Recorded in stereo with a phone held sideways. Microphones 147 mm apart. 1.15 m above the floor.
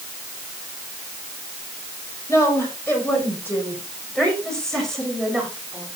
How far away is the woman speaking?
About 7 m.